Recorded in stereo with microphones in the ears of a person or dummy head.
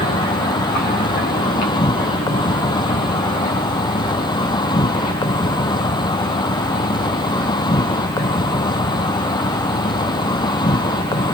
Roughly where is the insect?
Left.